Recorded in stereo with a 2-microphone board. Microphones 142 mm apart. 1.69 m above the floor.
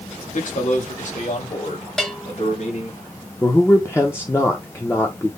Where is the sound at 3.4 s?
15° left (ahead or behind), 0.7 m.